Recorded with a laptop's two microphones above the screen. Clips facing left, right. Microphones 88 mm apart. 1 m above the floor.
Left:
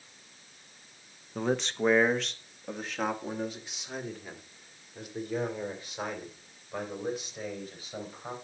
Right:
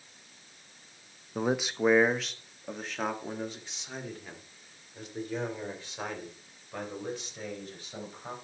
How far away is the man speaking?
About 0.6 m.